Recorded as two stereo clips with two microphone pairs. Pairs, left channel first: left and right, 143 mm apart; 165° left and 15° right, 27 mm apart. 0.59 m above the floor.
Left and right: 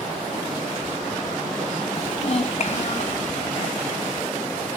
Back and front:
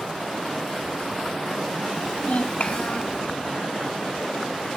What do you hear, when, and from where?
1.9 s a child speaking: 135° left, 1.9 m; by 3.2 s 120° left, 3 m